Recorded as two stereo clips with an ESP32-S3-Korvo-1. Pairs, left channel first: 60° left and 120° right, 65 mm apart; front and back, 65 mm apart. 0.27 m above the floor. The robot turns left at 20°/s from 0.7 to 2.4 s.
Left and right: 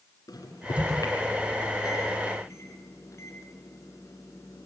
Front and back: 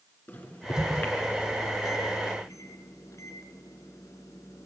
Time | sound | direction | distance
0.3 | a microwave | 60° left | 2.5 m